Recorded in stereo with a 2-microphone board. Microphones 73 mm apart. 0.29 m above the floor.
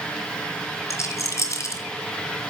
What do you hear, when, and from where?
0.9 s a rattle: 45° left (ahead or behind), 3.5 m